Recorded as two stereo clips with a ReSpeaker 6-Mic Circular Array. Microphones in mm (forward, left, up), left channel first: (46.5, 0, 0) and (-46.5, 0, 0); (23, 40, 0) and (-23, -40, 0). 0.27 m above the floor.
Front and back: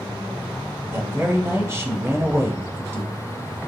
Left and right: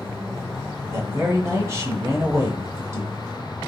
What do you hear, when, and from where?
0.9 s a man speaking: 145° right, 1.1 m